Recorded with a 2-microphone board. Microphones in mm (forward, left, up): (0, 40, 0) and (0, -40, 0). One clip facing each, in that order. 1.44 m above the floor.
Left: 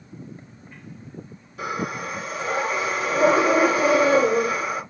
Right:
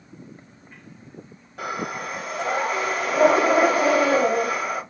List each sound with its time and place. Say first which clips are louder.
1.6 s breathing: left 1 dB; 50° right (ahead or behind), 3 m